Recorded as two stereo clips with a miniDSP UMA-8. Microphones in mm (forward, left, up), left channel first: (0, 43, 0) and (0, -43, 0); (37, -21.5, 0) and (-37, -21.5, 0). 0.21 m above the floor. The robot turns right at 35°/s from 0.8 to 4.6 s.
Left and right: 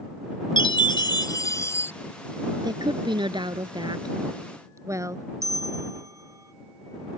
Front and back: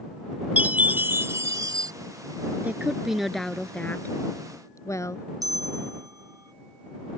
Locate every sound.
0.6 s a chime: 110° left; by 1.9 s 150° left
2.6 s a woman speaking: 115° right; by 5.2 s 45° right
5.4 s a bell: 140° right